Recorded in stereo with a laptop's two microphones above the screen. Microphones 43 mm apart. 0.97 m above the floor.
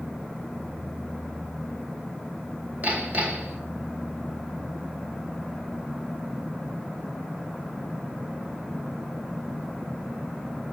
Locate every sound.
2.8 s hammering: 45° right (ahead or behind), 1.8 m